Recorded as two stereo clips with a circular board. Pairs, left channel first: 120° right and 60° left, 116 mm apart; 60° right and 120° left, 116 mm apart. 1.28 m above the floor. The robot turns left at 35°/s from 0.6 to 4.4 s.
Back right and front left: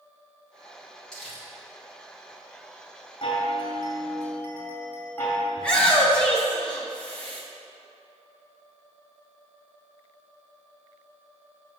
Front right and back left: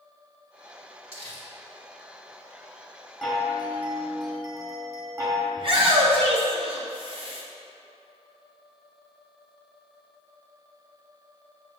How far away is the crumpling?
About 2.5 m.